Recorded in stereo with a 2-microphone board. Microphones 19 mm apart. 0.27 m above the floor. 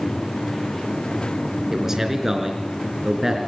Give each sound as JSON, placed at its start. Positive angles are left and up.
{"t": 1.7, "sound": "a man speaking", "side_deg": -20, "distance_m": 3.5}